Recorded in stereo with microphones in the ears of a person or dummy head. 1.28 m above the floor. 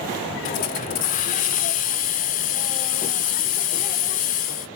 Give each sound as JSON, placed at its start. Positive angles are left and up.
{"t": 0.5, "sound": "a hiss", "side_deg": 40, "distance_m": 0.6}